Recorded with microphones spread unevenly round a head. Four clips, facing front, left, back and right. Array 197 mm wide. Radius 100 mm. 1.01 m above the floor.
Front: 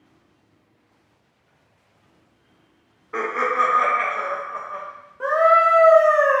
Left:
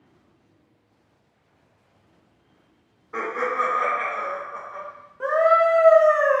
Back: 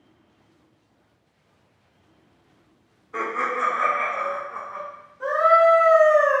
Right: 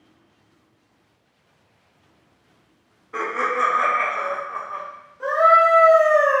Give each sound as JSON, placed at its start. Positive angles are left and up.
{"t": 3.1, "sound": "laughter", "azimuth_deg": -10, "distance_m": 1.2}
{"t": 5.2, "sound": "a scream", "azimuth_deg": 40, "distance_m": 0.7}